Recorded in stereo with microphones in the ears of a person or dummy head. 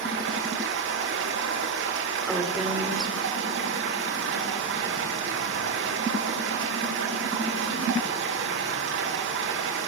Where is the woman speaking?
5° right (ahead or behind), 3.5 m.